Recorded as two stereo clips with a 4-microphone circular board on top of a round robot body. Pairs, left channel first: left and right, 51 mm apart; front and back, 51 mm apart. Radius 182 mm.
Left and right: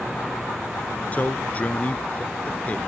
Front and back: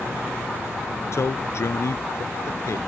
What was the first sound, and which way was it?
A man speaking, 30° left.